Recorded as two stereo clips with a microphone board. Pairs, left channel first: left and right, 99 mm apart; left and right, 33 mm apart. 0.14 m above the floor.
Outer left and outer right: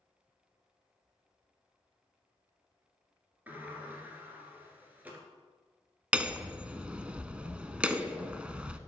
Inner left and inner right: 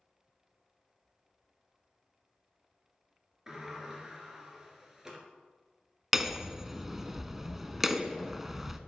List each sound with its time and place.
3.5 s a sliding door: 15° right (ahead or behind), 2.0 m
6.1 s hammering: 10° right (ahead or behind), 0.6 m